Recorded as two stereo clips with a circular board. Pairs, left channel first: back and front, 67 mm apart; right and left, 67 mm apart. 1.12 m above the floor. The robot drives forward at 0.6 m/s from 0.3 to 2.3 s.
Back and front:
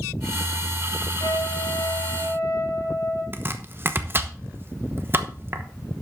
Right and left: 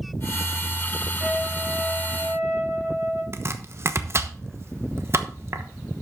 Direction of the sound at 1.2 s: 170° left.